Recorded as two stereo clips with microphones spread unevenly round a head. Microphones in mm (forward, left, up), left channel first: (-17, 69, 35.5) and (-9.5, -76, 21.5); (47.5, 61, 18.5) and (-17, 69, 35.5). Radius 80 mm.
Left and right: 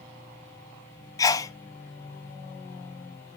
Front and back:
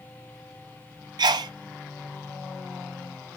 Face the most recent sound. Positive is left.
turn(degrees=160)